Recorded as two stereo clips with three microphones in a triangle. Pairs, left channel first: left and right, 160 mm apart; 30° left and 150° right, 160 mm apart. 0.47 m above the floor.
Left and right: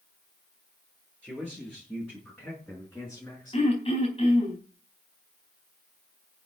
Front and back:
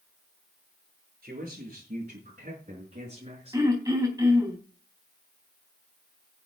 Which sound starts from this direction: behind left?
Throat clearing, at 3.5 s.